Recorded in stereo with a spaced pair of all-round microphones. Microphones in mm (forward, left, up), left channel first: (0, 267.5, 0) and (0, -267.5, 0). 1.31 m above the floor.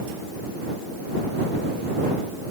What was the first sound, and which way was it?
Only background noise.